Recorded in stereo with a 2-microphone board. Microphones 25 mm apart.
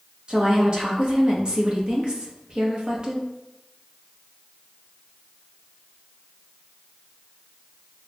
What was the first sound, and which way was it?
A woman speaking, 35° right (ahead or behind).